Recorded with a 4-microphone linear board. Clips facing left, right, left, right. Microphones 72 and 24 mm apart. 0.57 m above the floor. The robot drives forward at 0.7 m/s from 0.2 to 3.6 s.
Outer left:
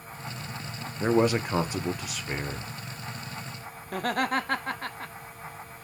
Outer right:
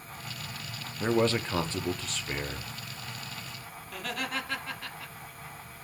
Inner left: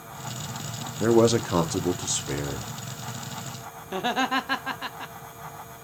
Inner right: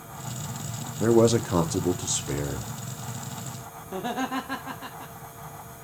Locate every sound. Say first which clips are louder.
1.0 s a man speaking: outer left 3 dB, even; 10° left (ahead or behind), 0.6 m; by 2.6 s 5° left (ahead or behind), 1.1 m
3.9 s laughter: outer left 9 dB, inner left 4 dB; 40° left (ahead or behind), 1.0 m